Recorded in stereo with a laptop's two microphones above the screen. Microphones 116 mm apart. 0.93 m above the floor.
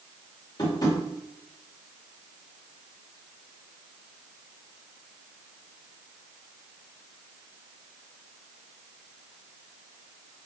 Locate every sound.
0.6 s tapping: 35° left (ahead or behind), 2.5 m